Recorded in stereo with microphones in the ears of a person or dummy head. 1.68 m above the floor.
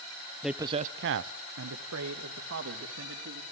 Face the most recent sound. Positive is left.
turn(degrees=-65)  # may be behind; listen again after turning